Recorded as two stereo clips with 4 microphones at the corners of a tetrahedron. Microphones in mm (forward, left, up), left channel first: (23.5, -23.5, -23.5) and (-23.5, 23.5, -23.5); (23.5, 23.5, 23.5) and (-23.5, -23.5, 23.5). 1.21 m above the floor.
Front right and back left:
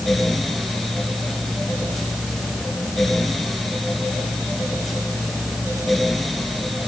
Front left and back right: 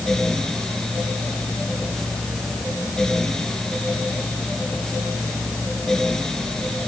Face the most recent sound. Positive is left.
No sound to turn to.